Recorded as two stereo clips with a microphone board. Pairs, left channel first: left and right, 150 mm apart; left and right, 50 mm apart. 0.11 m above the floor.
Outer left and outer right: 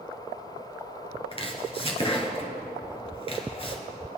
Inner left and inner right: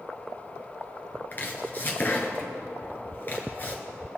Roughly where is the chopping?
Left.